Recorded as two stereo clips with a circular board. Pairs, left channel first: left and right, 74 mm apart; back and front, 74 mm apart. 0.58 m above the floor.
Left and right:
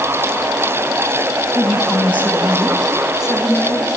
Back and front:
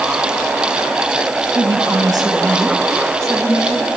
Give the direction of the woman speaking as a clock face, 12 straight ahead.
12 o'clock.